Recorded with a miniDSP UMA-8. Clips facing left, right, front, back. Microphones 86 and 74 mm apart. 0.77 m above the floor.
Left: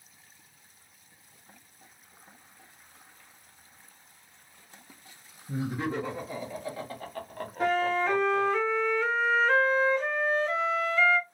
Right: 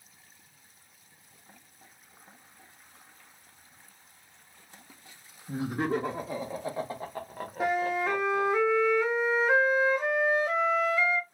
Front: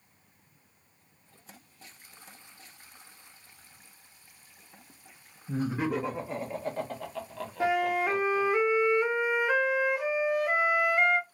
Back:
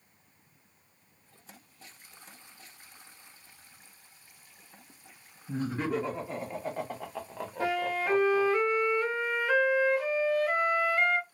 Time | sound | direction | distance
5.5 | laughter | 75° right | 1.2 m
7.6 | a flute | 35° right | 0.6 m